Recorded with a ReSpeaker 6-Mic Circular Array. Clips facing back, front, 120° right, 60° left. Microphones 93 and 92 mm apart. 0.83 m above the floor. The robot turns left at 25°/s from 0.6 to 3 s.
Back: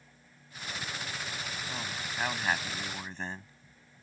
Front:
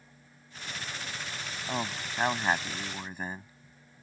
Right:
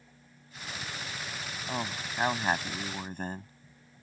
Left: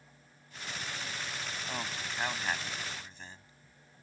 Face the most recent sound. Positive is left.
turn(degrees=-80)